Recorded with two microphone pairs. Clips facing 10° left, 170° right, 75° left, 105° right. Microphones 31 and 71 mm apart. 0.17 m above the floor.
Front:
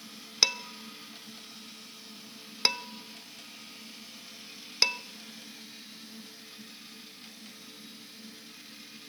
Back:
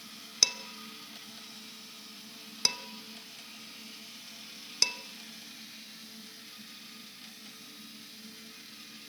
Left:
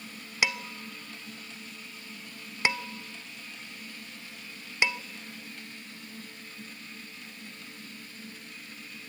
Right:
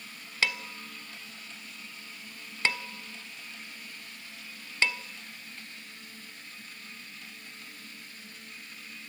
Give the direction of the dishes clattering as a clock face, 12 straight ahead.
11 o'clock.